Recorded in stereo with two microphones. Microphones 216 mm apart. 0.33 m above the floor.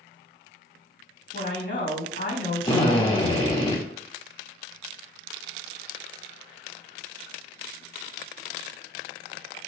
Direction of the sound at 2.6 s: 25° left (ahead or behind).